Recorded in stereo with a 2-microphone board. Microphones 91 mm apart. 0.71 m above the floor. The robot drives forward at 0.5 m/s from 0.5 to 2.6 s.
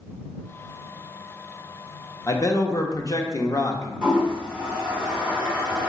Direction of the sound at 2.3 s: 35° left (ahead or behind).